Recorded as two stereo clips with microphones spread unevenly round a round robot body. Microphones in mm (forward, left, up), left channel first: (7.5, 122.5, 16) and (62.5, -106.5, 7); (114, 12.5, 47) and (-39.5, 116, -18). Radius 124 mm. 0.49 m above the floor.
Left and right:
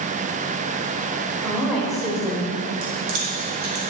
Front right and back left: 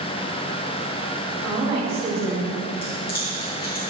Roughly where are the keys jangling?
Right.